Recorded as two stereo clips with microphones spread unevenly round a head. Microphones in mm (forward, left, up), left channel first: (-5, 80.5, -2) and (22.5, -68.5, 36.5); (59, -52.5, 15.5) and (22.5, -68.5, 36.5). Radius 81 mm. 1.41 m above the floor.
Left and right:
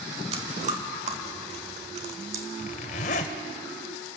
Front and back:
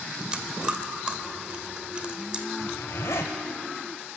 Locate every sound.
0.3 s chewing: 115° right, 2 m
2.6 s a zipper: 75° left, 1.3 m